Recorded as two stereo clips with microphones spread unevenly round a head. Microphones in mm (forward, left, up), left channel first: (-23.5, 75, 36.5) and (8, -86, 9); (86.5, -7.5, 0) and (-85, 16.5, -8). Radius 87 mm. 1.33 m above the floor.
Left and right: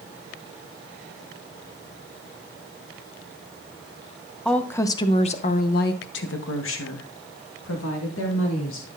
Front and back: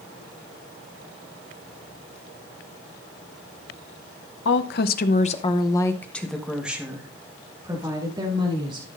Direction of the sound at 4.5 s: 15° left.